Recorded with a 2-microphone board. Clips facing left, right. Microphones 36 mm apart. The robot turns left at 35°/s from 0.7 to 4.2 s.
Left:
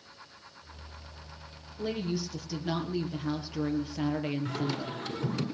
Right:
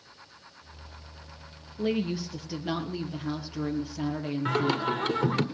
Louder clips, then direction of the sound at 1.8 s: Right 4 dB; 130° right.